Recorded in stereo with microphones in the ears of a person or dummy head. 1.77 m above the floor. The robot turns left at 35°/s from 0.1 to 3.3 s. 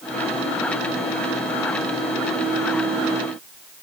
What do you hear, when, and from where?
Only background noise.